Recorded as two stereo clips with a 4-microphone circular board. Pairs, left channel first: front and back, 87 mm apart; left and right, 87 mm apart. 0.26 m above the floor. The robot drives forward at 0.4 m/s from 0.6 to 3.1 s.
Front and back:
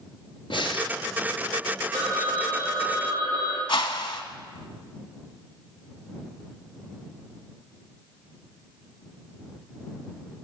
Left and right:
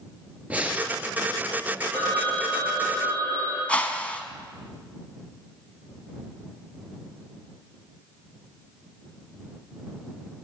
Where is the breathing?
15° right, 0.9 m; by 0.9 s 20° right, 0.8 m.